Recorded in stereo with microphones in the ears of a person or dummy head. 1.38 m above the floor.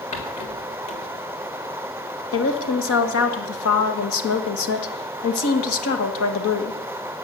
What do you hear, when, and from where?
0.1 s a rattle: 35° left (ahead or behind), 3.5 m
2.3 s a woman speaking: 75° left (ahead or behind), 1.8 m